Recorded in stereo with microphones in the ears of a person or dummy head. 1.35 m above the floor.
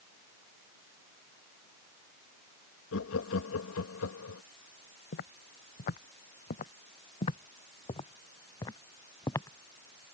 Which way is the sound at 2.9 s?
70° left (ahead or behind).